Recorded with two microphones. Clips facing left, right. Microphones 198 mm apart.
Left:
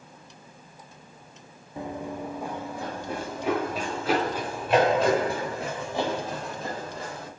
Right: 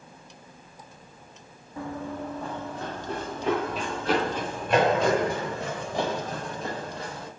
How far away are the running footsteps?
About 0.5 m.